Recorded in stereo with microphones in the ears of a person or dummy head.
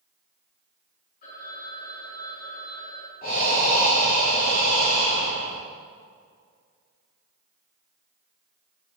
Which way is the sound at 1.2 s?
45° left (ahead or behind).